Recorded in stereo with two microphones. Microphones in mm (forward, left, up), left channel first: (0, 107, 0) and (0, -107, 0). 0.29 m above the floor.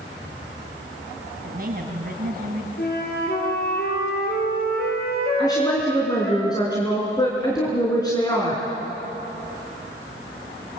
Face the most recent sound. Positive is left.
turn(degrees=20)  # may be behind; listen again after turning